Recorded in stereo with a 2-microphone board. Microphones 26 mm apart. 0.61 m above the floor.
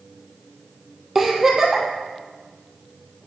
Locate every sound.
1.1 s a giggle: 5° right (ahead or behind), 3 m